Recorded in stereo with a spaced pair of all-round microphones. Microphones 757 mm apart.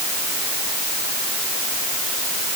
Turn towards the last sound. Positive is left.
No sound to turn to.